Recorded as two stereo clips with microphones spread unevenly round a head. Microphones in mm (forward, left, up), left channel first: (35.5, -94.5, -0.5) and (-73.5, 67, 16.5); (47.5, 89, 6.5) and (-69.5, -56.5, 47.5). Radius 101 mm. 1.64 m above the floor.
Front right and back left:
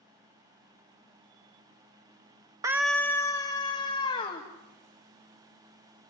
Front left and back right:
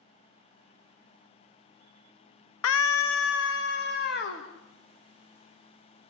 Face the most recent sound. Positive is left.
turn(degrees=10)